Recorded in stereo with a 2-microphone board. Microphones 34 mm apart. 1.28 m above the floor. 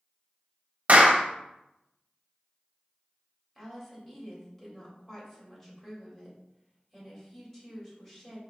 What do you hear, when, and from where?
0.9 s a clap: 50° right (ahead or behind), 0.8 m
3.5 s a woman speaking: 10° left (ahead or behind), 2.5 m